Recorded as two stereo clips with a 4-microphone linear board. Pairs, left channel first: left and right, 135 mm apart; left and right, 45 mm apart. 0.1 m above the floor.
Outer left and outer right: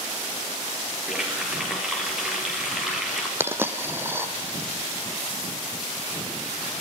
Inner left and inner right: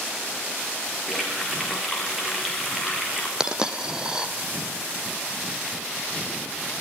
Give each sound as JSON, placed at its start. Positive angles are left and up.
{"t": 1.1, "sound": "a running tap", "side_deg": -5, "distance_m": 5.5}
{"t": 3.4, "sound": "a dropped coin", "side_deg": -15, "distance_m": 2.5}